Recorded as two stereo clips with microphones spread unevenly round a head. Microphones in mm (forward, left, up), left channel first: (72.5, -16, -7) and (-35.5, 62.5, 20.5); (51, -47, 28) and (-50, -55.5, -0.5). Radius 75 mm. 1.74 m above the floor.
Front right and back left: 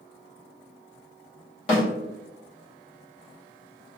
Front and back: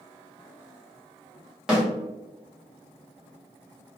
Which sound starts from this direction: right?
A snare drum, at 1.7 s.